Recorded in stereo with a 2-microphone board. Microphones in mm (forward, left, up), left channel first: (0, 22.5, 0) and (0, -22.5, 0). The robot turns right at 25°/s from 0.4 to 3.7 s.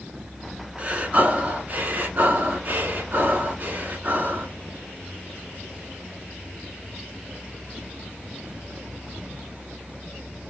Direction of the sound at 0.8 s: 140° right.